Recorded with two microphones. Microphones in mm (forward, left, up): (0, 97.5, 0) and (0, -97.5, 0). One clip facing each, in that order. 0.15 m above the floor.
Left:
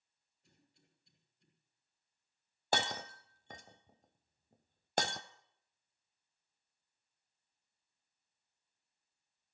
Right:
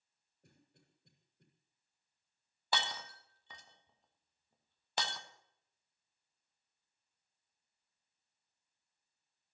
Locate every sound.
0.4 s a cough: 65° right (ahead or behind), 7.5 m
2.7 s breaking glass: 50° left (ahead or behind), 0.9 m